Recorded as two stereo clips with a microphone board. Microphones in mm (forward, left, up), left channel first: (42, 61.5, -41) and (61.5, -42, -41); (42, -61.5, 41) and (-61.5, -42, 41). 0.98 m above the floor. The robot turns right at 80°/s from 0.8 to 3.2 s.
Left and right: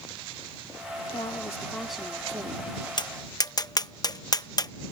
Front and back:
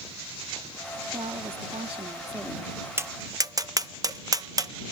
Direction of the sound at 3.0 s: 110° left.